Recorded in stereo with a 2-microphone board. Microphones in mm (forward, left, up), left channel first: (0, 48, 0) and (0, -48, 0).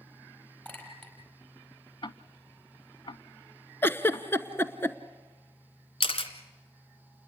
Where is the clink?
20° left (ahead or behind), 5 m.